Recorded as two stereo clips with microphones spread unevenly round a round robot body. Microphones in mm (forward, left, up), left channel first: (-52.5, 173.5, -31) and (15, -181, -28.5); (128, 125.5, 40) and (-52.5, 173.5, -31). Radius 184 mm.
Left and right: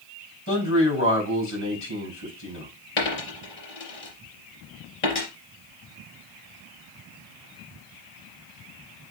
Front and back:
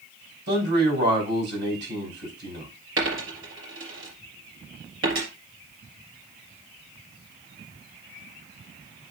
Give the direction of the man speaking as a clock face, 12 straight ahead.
7 o'clock.